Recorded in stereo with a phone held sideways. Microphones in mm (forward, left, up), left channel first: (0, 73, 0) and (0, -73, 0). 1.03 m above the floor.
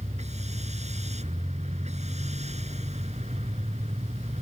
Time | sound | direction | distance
0.0 | a machine running | 50° right (ahead or behind) | ?